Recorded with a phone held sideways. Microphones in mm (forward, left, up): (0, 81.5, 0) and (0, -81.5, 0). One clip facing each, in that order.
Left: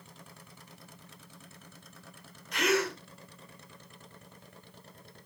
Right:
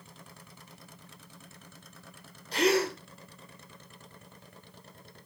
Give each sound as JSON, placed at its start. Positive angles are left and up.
{"t": 2.5, "sound": "a gasp", "side_deg": -30, "distance_m": 2.0}